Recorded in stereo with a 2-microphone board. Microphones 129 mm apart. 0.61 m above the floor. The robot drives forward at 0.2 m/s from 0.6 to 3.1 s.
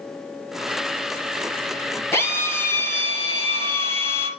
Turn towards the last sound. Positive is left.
turn(degrees=20)  # may be behind; listen again after turning